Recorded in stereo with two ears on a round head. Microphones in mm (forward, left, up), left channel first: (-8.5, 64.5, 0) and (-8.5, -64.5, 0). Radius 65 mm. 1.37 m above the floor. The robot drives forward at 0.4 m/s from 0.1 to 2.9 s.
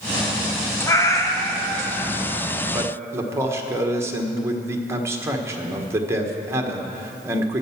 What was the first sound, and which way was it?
A cat meowing, 20° left (ahead or behind).